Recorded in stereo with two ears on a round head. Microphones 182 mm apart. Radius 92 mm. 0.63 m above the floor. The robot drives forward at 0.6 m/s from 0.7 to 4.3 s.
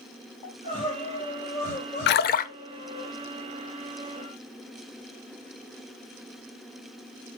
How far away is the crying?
About 5 m.